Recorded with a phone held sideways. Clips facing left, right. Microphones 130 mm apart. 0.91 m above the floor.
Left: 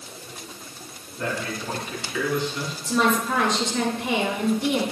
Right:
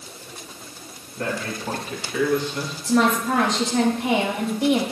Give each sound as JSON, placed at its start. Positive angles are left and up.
{"t": 1.2, "sound": "a man speaking", "side_deg": -80, "distance_m": 5.5}
{"t": 2.8, "sound": "a woman speaking", "side_deg": -85, "distance_m": 4.5}